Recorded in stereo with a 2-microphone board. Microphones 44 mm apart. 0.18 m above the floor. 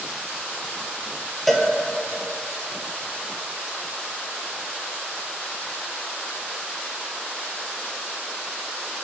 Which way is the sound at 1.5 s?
5° left (ahead or behind).